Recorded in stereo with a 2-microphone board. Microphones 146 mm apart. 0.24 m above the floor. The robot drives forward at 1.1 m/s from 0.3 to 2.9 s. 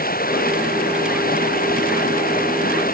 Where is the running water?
85° left; by 2.9 s 80° left.